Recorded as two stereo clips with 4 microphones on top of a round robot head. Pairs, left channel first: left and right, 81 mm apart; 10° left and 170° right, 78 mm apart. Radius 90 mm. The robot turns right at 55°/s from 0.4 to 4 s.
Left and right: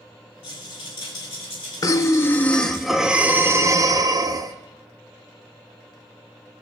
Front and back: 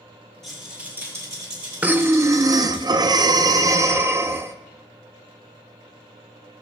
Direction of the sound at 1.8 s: 125° left.